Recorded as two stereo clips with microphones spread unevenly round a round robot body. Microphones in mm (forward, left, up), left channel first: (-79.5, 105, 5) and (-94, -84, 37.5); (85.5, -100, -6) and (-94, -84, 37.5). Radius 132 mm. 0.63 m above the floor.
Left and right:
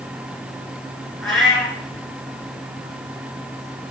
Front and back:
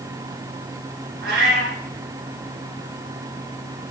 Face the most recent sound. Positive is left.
turn(degrees=175)